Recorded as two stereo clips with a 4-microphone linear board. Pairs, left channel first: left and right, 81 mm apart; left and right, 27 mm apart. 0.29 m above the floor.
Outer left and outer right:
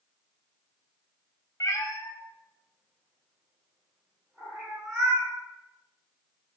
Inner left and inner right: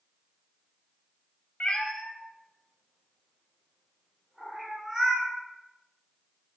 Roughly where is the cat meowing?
Left.